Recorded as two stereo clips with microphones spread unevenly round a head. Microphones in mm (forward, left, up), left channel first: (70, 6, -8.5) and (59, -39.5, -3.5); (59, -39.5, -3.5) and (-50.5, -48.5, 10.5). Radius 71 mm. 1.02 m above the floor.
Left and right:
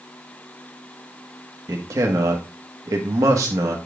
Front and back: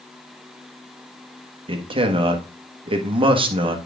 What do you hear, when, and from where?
1.7 s a man speaking: 130° right, 1.5 m